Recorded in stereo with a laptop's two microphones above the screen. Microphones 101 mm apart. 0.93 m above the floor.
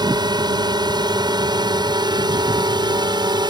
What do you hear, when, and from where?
0.0 s a drone: 45° right (ahead or behind)